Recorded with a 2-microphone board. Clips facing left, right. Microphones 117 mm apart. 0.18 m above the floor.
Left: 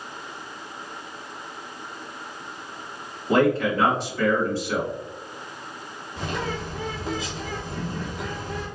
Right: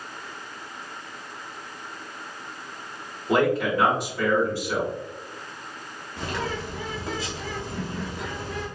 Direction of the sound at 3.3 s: 15° right (ahead or behind).